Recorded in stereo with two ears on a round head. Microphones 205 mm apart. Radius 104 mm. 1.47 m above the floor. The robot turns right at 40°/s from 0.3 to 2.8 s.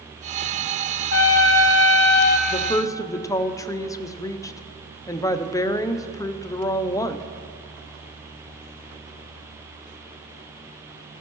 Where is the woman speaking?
25° left (ahead or behind), 0.6 m; by 7.2 s 15° left (ahead or behind), 0.6 m.